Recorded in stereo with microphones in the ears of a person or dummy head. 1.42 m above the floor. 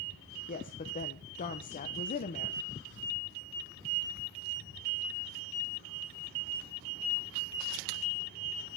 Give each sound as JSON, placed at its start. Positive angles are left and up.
{"t": 0.5, "sound": "a woman speaking", "side_deg": 40, "distance_m": 1.0}